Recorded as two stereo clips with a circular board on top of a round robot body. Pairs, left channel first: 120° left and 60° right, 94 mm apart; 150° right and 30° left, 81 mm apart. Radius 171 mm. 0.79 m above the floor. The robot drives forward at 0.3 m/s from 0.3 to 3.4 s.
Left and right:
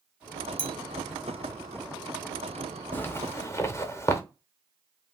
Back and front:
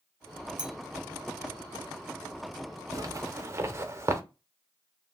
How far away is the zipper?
About 0.7 m.